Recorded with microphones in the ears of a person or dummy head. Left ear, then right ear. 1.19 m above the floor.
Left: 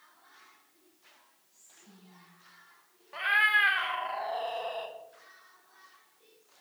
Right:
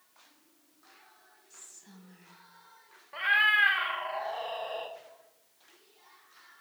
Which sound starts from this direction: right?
Whispering, at 1.5 s.